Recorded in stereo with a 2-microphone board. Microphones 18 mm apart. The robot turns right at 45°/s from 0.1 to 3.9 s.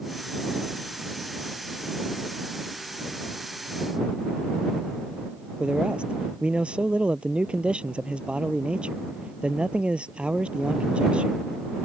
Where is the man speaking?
75° right (ahead or behind).